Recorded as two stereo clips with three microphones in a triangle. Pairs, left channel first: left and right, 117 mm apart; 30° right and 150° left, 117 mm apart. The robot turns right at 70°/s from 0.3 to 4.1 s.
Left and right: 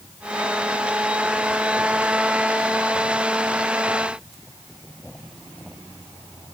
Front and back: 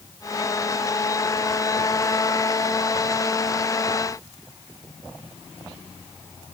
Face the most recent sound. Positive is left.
No sound to turn to.